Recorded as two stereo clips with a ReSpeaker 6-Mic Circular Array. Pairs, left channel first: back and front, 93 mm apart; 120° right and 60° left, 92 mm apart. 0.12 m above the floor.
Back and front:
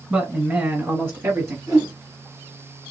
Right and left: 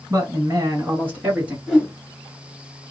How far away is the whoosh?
About 2 m.